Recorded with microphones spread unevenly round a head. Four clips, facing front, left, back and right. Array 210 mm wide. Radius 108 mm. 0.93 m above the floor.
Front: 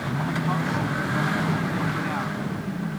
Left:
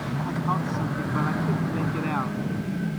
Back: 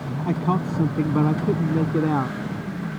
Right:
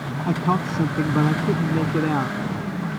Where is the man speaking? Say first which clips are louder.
Right 6 dB, back 5 dB; 135° right; by 2.4 s 145° right.